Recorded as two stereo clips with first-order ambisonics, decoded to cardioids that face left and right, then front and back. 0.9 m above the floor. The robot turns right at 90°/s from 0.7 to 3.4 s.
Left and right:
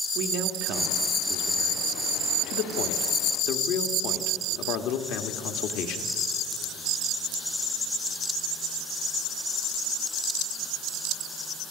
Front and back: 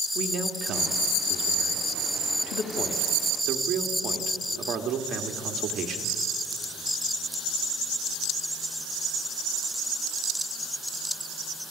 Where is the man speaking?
120° right, 1.5 m; by 6.1 s 120° left, 1.5 m.